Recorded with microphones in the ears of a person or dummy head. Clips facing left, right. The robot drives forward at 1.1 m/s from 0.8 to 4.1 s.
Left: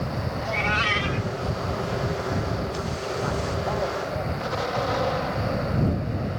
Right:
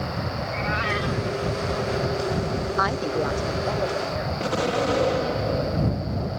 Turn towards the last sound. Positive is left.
turn(degrees=-40)  # may be behind; listen again after turning